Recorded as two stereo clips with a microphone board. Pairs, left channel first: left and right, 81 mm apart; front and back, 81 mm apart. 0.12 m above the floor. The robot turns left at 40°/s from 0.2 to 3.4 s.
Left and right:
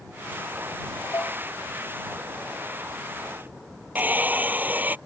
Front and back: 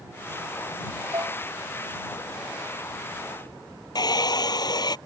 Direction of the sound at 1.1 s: 140° left.